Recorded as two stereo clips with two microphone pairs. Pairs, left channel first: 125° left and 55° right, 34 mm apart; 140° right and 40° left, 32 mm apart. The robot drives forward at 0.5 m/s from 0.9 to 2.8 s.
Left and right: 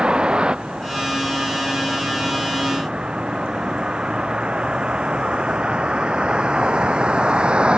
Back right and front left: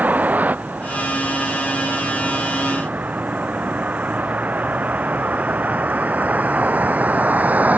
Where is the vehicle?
5° left; by 7.8 s straight ahead.